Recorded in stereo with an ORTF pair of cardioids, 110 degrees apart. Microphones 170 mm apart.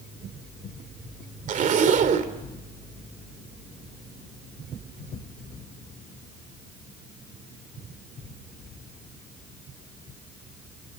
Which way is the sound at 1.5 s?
50° right.